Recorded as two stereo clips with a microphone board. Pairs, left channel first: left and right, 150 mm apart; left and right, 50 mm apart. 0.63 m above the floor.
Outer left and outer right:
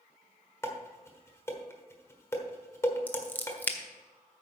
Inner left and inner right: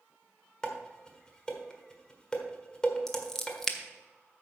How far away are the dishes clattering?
About 1.3 m.